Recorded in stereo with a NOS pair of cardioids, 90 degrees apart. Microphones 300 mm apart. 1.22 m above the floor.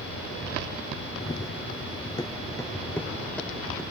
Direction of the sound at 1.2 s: 20° left.